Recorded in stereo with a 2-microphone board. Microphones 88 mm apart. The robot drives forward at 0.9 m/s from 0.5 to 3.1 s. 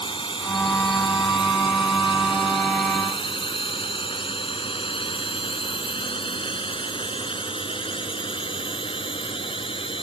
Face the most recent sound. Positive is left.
turn(degrees=75)  # may be behind; listen again after turning